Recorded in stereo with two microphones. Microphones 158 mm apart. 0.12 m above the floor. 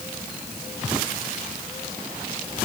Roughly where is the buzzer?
I don't hear a buzzer.